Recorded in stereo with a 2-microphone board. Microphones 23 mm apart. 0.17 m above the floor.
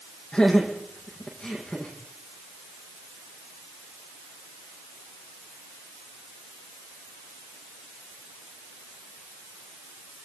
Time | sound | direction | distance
0.3 | laughter | 40° left (ahead or behind) | 7.5 m